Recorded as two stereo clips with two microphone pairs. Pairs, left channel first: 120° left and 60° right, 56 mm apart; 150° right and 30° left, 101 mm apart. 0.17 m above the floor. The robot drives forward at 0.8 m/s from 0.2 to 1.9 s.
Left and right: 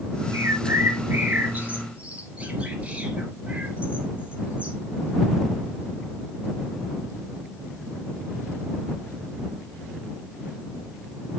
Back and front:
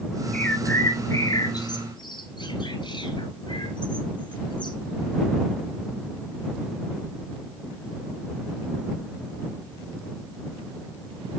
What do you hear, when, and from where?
0.3 s a bird: 75° right, 1.7 m; by 4.8 s 120° right, 1.9 m